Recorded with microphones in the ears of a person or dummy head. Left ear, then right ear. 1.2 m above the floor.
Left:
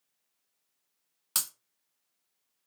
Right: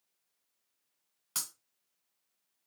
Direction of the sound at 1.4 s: 15° left (ahead or behind).